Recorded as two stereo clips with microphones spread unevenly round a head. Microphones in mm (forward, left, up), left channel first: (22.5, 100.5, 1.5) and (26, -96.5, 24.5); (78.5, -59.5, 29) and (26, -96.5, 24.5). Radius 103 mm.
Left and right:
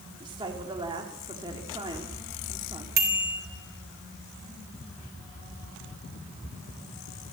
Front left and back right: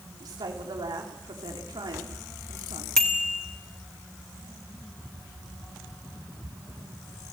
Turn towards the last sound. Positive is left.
turn(degrees=-45)